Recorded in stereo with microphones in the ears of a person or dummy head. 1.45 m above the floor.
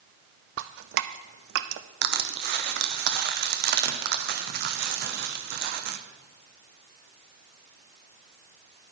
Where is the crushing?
55° right (ahead or behind), 0.7 m.